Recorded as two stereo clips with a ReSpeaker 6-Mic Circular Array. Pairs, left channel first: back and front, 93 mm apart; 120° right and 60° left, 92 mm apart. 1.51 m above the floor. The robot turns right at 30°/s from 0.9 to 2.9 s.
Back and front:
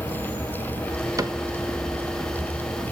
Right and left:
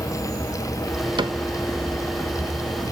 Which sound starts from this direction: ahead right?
An insect, at 0.0 s.